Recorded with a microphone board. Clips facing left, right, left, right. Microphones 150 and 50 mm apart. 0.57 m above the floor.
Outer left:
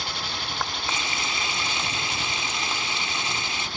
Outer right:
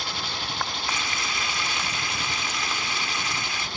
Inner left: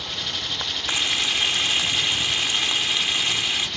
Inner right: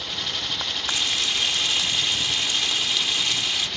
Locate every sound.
0.9 s frying: 25° left (ahead or behind)